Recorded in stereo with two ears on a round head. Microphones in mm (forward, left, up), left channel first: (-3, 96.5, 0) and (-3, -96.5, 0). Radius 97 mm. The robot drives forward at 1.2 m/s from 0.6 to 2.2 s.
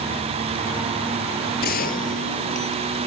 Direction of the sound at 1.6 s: 50° left (ahead or behind).